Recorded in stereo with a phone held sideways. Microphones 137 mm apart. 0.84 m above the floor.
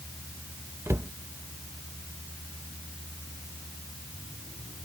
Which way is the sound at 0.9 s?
20° right (ahead or behind).